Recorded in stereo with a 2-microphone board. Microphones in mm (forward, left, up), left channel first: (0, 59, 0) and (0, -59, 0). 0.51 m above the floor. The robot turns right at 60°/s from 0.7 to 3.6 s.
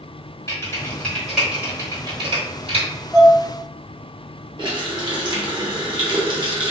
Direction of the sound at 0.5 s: 30° left (ahead or behind).